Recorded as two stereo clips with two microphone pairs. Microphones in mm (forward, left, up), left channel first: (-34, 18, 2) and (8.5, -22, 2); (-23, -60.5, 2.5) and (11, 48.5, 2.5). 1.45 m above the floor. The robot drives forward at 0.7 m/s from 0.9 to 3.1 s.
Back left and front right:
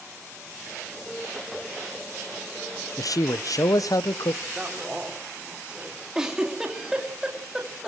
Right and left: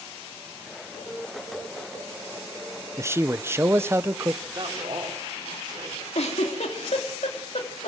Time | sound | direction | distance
3.0 | a man speaking | 135° left | 0.5 m
4.5 | a man speaking | 25° left | 4 m
6.2 | a giggle | 125° right | 3 m